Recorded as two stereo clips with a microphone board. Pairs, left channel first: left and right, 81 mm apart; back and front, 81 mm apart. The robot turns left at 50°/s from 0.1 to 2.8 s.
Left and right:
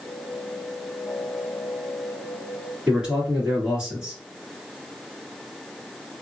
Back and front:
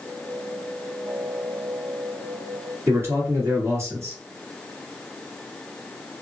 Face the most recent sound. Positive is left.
turn(degrees=-20)